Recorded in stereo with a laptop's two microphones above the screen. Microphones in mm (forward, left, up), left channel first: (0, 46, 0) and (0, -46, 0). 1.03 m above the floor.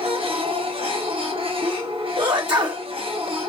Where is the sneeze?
65° right (ahead or behind), 1.0 m.